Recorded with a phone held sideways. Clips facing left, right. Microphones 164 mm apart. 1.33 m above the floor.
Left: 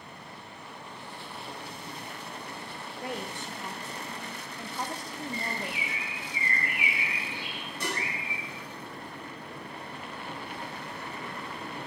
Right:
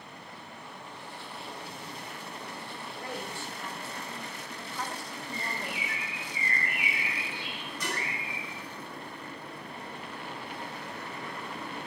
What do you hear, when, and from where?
3.0 s a woman speaking: 20° left (ahead or behind), 0.5 m
5.3 s a bird: 20° left (ahead or behind), 2 m
7.8 s dishes clattering: 30° left (ahead or behind), 1.6 m